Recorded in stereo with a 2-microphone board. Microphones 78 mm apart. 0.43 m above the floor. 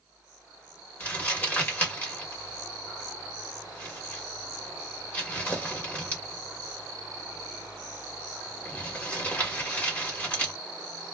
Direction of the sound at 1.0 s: 20° left (ahead or behind).